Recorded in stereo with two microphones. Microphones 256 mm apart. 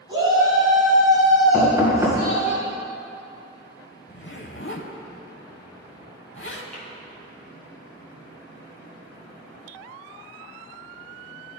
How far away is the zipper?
About 0.8 m.